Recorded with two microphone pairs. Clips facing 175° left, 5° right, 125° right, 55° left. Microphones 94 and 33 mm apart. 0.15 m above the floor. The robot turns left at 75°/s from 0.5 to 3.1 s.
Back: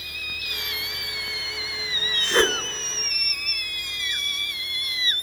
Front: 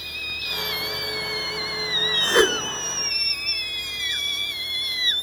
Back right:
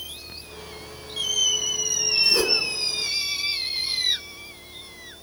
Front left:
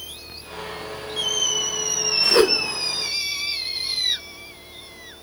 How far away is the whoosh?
About 0.8 m.